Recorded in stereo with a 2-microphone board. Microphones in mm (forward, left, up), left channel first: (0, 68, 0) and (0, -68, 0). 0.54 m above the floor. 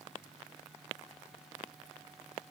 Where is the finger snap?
I don't hear a finger snap.